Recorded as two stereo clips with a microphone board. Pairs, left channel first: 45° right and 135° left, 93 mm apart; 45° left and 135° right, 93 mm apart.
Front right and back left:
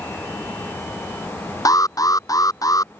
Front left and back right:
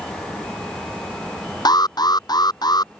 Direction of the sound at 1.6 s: 5° left.